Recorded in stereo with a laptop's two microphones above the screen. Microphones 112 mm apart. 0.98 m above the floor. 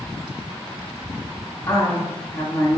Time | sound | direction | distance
1.7 | a woman speaking | 25° left (ahead or behind) | 1.4 m